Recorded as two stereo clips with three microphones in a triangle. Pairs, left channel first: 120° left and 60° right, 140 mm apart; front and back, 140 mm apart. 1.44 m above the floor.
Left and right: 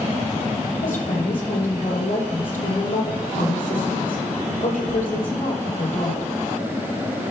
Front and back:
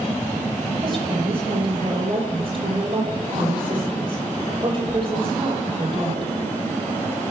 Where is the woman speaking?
135° left, 5.5 m.